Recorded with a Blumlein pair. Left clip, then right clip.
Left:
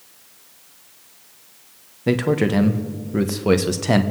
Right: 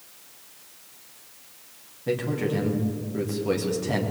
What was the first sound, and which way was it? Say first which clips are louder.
A man speaking: left 7 dB; 60° left.